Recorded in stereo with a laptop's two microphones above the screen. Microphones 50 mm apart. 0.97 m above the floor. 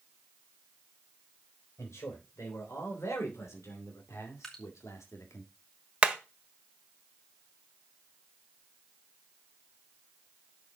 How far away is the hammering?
About 1.3 m.